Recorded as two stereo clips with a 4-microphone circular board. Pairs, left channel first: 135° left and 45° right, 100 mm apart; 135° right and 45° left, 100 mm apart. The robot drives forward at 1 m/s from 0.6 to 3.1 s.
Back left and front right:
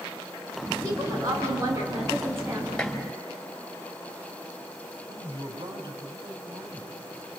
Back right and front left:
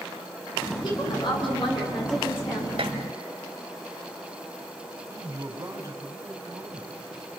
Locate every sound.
0.8 s a woman speaking: 95° right, 6 m; by 2.7 s 115° right, 6.5 m
2.8 s dishes clattering: 50° left, 2 m; by 3.0 s 55° left, 2.0 m
5.1 s a man speaking: 15° right, 3 m